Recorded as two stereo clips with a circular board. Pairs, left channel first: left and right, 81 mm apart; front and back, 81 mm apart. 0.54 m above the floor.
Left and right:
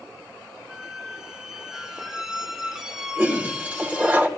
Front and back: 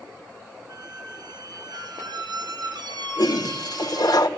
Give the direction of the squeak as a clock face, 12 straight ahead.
6 o'clock.